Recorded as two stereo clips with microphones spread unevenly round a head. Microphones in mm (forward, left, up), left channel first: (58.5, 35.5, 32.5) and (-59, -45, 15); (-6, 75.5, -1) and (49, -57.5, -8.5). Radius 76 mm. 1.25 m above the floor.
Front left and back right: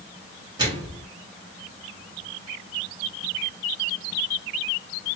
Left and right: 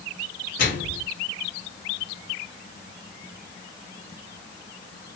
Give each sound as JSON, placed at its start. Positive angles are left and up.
{"t": 0.6, "sound": "a microwave", "azimuth_deg": 150, "distance_m": 2.5}